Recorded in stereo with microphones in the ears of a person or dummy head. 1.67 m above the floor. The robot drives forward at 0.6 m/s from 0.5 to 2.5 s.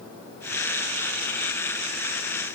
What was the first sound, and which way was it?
Only background noise.